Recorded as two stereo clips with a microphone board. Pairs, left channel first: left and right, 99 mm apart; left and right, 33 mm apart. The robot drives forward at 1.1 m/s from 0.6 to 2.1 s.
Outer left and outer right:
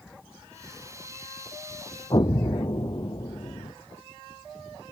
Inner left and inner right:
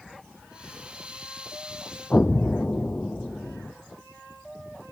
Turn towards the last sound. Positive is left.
turn(degrees=45)  # may be behind; listen again after turning